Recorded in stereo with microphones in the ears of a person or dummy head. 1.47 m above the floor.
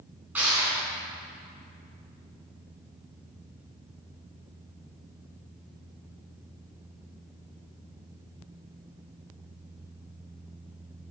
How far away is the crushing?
About 4 m.